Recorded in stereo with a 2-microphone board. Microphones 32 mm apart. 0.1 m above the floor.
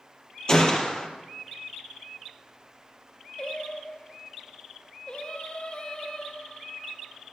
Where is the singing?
35° left (ahead or behind), 1.1 m.